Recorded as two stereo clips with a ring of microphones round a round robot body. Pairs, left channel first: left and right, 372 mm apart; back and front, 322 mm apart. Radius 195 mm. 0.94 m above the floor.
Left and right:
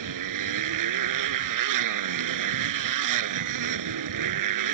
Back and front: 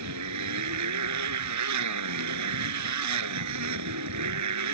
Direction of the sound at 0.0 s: 50° right.